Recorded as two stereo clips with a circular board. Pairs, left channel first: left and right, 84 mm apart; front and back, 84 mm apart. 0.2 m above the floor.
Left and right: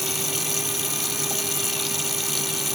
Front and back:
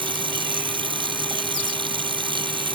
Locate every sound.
0.0 s running water: straight behind